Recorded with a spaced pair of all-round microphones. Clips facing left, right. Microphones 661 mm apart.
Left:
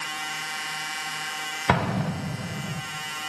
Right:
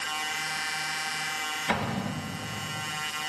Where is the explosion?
75° left (ahead or behind), 1.2 m.